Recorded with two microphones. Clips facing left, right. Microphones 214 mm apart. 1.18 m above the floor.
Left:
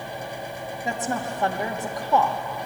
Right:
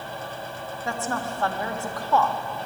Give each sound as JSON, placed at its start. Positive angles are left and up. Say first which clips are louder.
{"t": 0.8, "sound": "a woman speaking", "louder": "left 1 dB", "side_deg": 15, "distance_m": 1.6}